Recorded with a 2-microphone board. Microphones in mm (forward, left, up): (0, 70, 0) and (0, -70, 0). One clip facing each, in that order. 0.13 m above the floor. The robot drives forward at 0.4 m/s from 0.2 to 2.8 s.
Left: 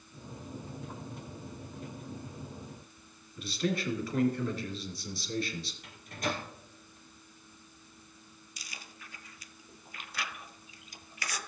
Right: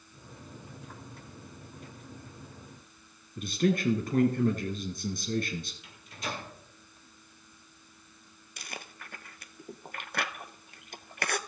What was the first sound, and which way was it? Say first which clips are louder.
A man speaking: right 5 dB; 50° right (ahead or behind).